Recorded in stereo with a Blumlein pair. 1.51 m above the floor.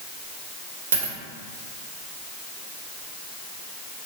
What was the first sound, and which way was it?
A dropped coin, 65° right.